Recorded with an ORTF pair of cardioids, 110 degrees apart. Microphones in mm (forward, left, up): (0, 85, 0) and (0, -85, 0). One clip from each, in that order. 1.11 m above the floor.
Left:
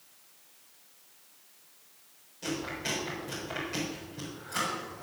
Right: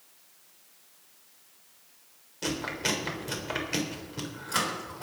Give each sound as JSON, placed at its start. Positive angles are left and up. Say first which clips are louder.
{"t": 2.4, "sound": "chewing", "louder": "right 4 dB", "azimuth_deg": -60, "distance_m": 4.0}